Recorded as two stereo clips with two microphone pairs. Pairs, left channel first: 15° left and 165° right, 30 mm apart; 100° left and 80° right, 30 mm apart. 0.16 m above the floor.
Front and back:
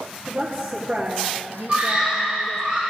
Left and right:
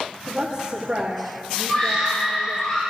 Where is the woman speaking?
145° right, 4 m; by 2.7 s 140° right, 2.5 m.